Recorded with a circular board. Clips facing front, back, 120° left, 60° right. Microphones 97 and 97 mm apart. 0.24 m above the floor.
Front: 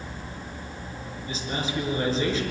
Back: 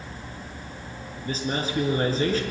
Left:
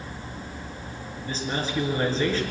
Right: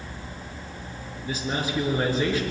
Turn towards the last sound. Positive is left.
turn(degrees=-135)